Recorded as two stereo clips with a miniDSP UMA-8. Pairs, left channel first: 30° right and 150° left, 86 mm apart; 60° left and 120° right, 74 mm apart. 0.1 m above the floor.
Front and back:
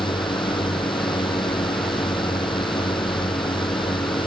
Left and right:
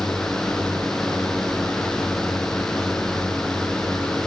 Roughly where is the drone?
Ahead right.